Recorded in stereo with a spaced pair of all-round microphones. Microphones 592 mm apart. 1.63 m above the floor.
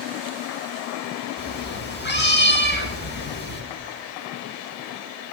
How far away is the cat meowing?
About 3.5 m.